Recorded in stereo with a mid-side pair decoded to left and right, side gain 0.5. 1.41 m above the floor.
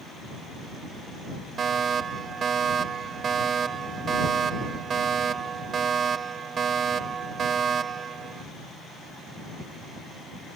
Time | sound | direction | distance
1.6 | a fire alarm | 45° right | ?